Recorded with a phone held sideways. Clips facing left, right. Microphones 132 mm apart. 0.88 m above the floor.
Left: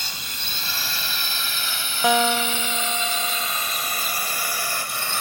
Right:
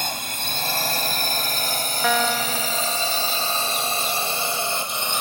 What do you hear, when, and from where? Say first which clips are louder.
0.0 s a drone: right 8 dB; 50° right (ahead or behind); by 5.2 s 20° right (ahead or behind)
2.0 s a guitar: left 3 dB; 15° left (ahead or behind)